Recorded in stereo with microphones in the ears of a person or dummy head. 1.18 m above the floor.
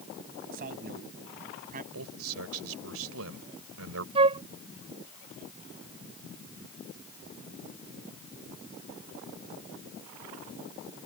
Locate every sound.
0.5 s a man speaking: 50° right (ahead or behind); by 1.8 s 45° right (ahead or behind)
1.9 s a man speaking: 85° right
4.2 s a flute: 30° right (ahead or behind)